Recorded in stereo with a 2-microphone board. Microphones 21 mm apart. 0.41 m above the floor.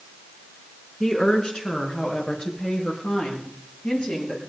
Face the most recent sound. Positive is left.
turn(degrees=75)  # may be behind; listen again after turning